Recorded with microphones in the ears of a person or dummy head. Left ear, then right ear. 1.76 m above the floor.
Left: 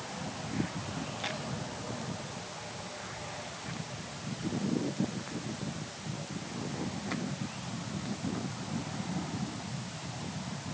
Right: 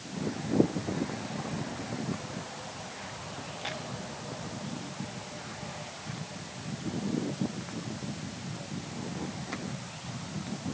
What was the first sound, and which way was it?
Only background noise.